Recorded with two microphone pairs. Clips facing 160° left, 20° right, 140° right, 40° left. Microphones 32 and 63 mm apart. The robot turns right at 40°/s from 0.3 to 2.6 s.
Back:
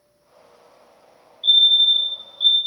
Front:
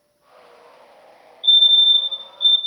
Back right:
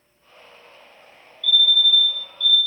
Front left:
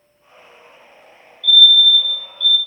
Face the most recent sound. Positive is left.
turn(degrees=150)